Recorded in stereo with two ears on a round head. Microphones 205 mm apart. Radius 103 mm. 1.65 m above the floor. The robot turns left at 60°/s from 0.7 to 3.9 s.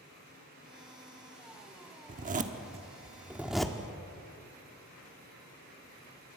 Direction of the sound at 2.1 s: 35° right (ahead or behind).